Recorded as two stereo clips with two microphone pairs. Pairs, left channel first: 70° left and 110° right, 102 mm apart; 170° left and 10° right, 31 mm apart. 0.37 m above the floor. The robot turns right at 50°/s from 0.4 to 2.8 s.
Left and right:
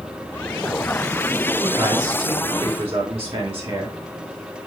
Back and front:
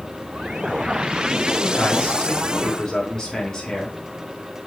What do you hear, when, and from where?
1.6 s a man speaking: straight behind, 4 m; by 4.0 s 120° right, 4 m